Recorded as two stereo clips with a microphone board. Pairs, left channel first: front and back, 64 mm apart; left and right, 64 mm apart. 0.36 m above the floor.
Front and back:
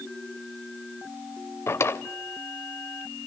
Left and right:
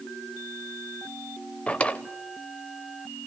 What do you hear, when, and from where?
1.7 s a drawer: 25° left, 0.6 m